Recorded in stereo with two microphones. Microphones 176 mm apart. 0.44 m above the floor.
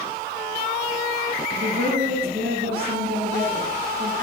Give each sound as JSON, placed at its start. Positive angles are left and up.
{"t": 1.6, "sound": "a woman speaking", "side_deg": -60, "distance_m": 4.0}